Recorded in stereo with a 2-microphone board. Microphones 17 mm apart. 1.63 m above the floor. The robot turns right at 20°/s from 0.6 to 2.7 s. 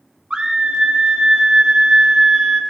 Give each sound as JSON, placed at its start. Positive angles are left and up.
{"t": 0.3, "sound": "a scream", "azimuth_deg": -95, "distance_m": 1.1}